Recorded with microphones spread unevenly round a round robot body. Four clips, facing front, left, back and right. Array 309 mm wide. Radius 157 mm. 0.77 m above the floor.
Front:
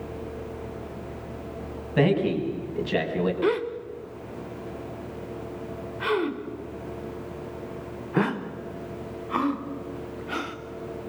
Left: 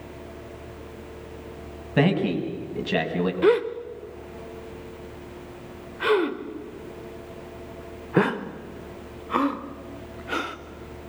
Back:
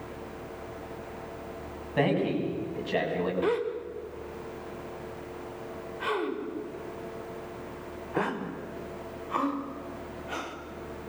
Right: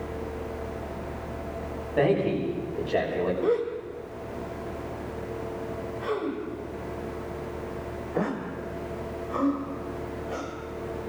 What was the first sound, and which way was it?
A man speaking, 60° left.